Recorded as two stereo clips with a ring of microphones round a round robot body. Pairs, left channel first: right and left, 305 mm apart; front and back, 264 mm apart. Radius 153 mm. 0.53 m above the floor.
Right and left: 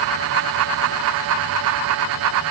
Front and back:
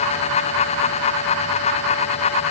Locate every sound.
Only background noise.